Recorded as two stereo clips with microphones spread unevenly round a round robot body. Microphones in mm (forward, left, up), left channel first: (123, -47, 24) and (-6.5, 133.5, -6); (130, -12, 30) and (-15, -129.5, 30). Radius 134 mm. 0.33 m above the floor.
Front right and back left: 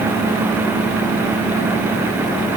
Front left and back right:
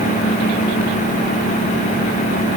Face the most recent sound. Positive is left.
No sound to turn to.